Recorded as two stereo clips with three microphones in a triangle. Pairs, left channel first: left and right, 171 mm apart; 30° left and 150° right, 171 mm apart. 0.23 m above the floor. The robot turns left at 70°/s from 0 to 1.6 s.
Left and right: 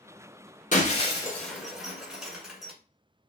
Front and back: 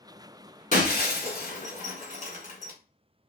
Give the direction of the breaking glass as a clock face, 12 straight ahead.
10 o'clock.